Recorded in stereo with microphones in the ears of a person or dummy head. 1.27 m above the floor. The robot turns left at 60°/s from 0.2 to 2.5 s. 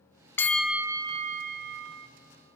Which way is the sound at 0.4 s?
15° left.